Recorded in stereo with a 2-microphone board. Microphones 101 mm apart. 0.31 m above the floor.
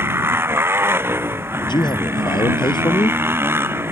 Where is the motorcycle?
20° right (ahead or behind).